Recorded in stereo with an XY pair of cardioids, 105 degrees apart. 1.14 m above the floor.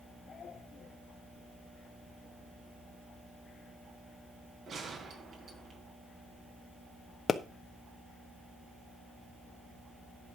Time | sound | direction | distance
4.7 | a gunshot | 50° right | 3 m
7.3 | a pop | 35° left | 1.0 m